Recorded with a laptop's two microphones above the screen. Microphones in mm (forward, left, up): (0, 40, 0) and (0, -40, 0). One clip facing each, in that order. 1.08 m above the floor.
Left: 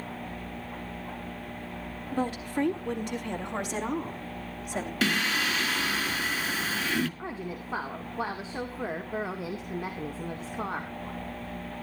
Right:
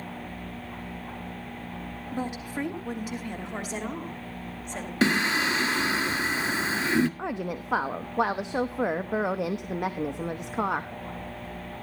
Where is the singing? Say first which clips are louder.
Right 5 dB; 30° right (ahead or behind), 1.6 m.